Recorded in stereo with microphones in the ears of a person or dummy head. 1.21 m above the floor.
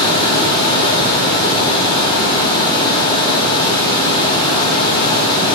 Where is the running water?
25° left (ahead or behind), 2 m.